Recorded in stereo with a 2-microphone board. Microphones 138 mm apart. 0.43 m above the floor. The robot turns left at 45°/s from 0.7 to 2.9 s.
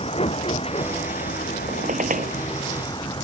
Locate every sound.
0.0 s a vehicle: 45° left (ahead or behind); by 3.2 s 35° left (ahead or behind)
1.7 s a squeak: 60° right (ahead or behind); by 2.3 s 90° right